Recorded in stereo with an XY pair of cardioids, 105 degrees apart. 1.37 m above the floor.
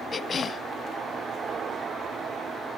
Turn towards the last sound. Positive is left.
turn(degrees=35)